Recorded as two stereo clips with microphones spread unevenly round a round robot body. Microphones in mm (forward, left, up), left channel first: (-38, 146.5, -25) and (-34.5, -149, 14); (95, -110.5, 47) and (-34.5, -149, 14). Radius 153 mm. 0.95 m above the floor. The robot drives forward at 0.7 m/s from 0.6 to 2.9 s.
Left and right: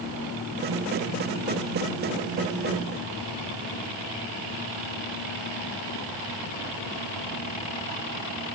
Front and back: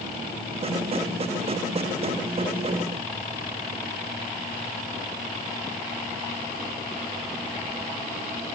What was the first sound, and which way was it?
Only background noise.